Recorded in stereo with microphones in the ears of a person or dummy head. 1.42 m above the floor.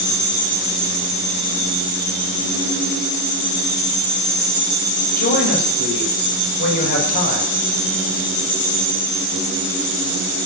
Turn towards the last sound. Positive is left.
turn(degrees=60)  # may be behind; listen again after turning